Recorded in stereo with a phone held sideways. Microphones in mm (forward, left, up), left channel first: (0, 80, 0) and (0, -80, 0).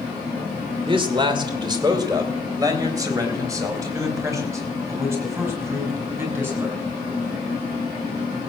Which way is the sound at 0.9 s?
30° right (ahead or behind).